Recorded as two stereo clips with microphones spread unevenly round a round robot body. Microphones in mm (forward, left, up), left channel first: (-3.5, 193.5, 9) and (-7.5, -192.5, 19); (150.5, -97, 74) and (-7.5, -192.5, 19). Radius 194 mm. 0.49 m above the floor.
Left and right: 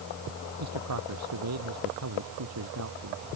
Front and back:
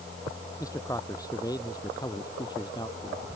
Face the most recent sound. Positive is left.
turn(degrees=-35)